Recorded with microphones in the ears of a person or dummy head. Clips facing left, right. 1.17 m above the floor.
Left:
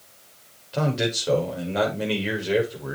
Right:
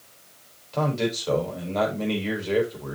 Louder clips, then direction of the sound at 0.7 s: Even; 10° left (ahead or behind).